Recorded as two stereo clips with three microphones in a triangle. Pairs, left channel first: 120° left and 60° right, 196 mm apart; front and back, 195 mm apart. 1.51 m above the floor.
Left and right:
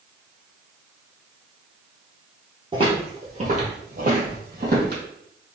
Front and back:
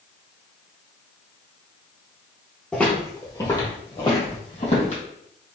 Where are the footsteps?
80° right, 1.6 m; by 5.0 s 40° right, 2.5 m.